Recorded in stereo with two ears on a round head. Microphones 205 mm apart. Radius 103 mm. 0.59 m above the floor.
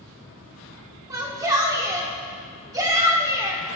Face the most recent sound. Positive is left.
turn(degrees=-15)  # may be behind; listen again after turning